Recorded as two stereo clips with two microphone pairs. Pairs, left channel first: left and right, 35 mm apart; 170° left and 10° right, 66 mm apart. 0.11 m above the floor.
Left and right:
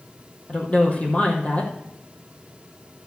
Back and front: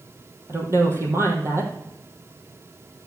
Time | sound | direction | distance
0.5 | a woman speaking | 40° left | 3 m